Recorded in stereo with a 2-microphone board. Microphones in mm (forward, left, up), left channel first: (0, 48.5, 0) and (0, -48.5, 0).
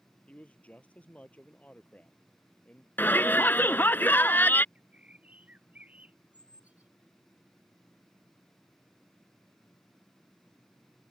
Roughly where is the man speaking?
Centre.